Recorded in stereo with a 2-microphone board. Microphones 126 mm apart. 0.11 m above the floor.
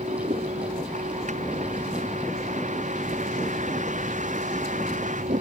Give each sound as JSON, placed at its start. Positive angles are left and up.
{"t": 0.0, "sound": "a vehicle", "side_deg": -70}